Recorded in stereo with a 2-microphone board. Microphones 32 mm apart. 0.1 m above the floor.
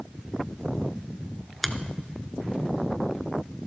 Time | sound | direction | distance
1.6 | a finger snap | 5° left (ahead or behind) | 0.9 m